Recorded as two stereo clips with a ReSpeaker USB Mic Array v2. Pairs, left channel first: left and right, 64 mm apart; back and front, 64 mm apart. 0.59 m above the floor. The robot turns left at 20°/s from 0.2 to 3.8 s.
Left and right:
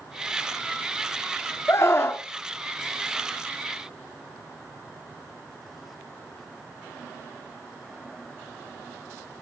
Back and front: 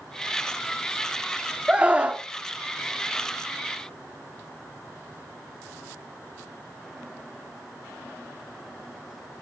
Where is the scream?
70° left, 1.2 m; by 2.2 s 60° left, 1.2 m.